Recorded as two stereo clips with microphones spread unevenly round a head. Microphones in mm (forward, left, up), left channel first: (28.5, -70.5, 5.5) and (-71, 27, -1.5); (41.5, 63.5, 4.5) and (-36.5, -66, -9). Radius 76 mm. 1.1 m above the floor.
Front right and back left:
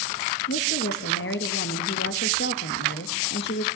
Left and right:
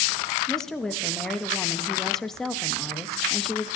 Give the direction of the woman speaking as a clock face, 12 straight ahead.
1 o'clock.